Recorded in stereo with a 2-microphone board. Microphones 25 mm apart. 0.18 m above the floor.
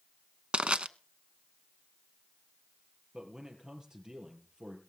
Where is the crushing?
50° right (ahead or behind), 0.6 m.